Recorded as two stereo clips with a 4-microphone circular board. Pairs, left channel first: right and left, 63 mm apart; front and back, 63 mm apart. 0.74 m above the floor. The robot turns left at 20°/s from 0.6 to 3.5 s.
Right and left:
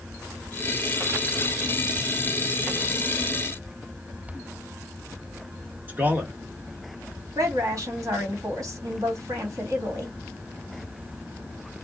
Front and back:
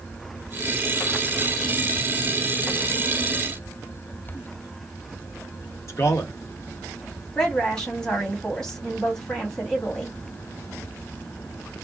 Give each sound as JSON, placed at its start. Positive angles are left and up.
{"t": 5.9, "sound": "a man speaking", "azimuth_deg": 30, "distance_m": 1.0}
{"t": 7.3, "sound": "a woman speaking", "azimuth_deg": 80, "distance_m": 1.7}